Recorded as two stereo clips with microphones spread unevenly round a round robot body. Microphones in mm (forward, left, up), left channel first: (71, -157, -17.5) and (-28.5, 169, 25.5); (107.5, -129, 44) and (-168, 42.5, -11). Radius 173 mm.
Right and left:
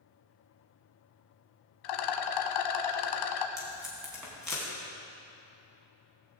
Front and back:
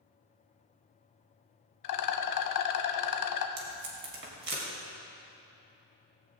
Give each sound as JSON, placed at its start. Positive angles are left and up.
{"t": 1.8, "sound": "a rattle", "azimuth_deg": -65, "distance_m": 1.1}
{"t": 3.6, "sound": "tape being pulled", "azimuth_deg": -160, "distance_m": 3.5}